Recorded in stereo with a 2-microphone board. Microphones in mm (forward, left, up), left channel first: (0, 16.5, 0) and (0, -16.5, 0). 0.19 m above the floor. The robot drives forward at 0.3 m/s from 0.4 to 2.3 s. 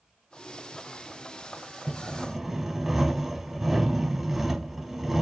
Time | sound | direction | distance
1.9 | sawing | 5° right (ahead or behind) | 0.6 m